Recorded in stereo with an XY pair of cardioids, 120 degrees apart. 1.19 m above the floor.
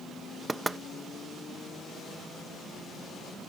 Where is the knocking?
15° right.